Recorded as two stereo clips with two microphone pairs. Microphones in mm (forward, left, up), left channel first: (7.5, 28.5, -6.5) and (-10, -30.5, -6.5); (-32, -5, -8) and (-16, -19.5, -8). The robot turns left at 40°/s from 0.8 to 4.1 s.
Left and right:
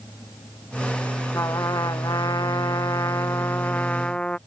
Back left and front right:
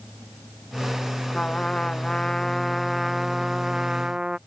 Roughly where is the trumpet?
Left.